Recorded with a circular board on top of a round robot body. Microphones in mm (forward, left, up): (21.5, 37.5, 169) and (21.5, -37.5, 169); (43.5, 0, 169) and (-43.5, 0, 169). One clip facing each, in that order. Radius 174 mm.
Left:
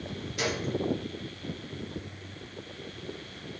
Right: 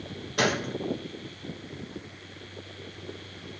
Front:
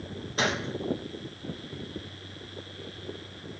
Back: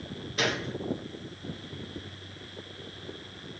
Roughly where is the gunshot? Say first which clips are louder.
Right 5 dB, front 1 dB; ahead right.